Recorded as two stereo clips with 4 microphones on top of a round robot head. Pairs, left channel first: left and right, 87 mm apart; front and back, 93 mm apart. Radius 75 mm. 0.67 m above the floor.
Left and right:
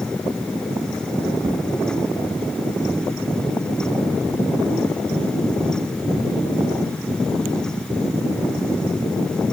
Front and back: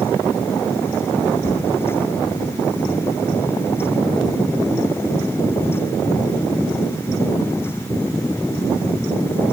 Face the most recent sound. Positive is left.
turn(degrees=-50)